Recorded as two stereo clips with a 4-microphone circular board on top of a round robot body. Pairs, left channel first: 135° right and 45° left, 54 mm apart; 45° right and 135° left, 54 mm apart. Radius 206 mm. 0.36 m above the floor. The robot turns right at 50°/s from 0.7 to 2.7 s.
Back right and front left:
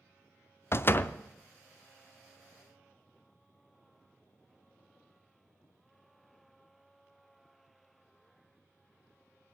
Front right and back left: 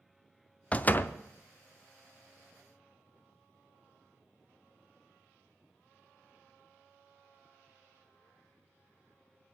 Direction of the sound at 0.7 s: 105° right.